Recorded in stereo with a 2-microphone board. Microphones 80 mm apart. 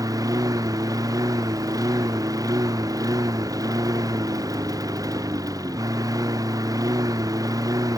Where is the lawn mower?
45° right (ahead or behind).